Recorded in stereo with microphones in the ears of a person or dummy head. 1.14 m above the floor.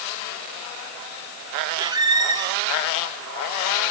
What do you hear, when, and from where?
1.8 s a squeak: 20° right (ahead or behind), 0.8 m